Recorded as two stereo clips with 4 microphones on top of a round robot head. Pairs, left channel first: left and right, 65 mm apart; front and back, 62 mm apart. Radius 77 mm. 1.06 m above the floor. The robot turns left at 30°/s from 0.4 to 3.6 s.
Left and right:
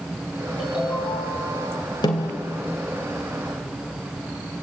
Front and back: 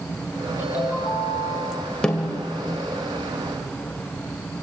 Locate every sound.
0.6 s a ringtone: 125° left, 7 m; by 1.8 s 85° left, 7 m
2.0 s a snare drum: 80° left, 2.5 m; by 2.4 s 70° left, 2.5 m